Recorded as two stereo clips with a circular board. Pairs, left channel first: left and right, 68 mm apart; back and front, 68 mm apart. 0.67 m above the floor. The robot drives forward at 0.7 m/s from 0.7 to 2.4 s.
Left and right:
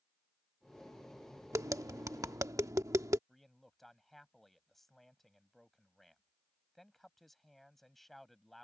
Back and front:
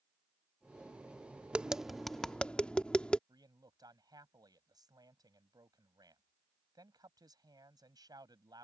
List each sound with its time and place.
1.5 s tapping: 70° right; by 3.2 s 110° right
3.3 s a man speaking: straight ahead